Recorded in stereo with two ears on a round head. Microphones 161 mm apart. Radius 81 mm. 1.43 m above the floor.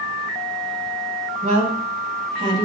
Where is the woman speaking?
35° right (ahead or behind), 1.7 m; by 2.6 s 30° right (ahead or behind), 3 m.